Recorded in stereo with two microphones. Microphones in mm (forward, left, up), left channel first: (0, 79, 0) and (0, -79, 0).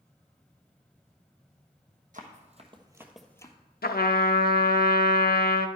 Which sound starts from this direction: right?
Running footsteps, at 2.1 s.